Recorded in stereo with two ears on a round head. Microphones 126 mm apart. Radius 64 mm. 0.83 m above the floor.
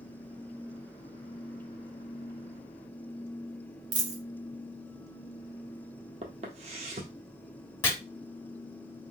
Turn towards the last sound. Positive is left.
turn(degrees=20)  # may be behind; listen again after turning